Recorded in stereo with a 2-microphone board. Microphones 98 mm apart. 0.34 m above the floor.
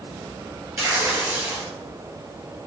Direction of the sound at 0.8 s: 30° right (ahead or behind).